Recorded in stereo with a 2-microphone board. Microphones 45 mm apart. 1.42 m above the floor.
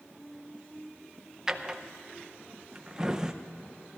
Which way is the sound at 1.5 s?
15° right (ahead or behind).